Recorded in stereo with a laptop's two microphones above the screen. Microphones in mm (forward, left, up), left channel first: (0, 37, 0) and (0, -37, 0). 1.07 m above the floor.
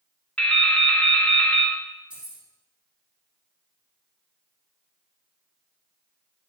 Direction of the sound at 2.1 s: 15° right (ahead or behind).